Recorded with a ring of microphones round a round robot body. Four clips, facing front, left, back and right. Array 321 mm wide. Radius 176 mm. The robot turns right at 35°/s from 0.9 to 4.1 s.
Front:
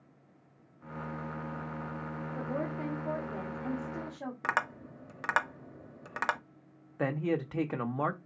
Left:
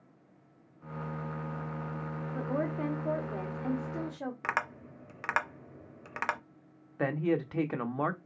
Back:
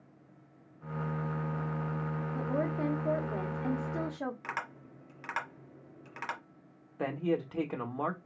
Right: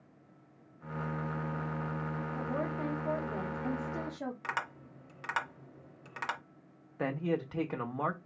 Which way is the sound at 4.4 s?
35° left.